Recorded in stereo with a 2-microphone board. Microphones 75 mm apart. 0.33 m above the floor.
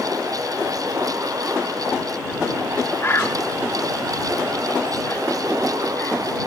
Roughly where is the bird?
Left.